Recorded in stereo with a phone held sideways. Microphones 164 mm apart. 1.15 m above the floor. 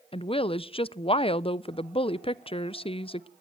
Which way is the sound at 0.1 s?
35° left (ahead or behind).